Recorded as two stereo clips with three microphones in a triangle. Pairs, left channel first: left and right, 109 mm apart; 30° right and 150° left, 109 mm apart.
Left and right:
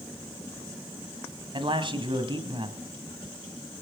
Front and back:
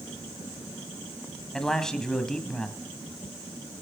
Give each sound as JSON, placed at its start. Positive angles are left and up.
{"t": 1.5, "sound": "a man speaking", "azimuth_deg": -115, "distance_m": 2.0}